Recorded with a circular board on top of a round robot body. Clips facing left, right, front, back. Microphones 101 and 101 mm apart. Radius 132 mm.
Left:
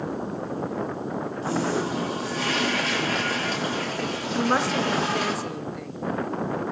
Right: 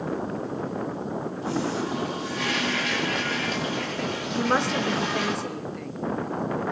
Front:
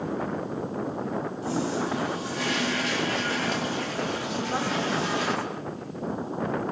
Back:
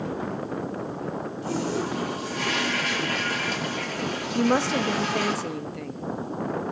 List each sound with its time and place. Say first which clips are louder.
1.4 s a toilet flushing: left 2 dB, back 1 dB; 140° left, 3.5 m
4.3 s a woman speaking: left 1 dB, back 8 dB; straight behind, 1.3 m